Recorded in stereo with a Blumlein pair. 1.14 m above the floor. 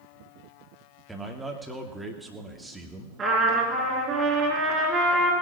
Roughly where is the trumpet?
Ahead right.